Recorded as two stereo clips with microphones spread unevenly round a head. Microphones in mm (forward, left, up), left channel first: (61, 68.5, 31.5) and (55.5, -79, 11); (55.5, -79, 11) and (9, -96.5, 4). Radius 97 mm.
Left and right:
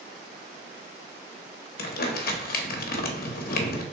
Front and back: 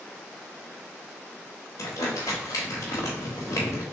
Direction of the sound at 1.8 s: 65° left.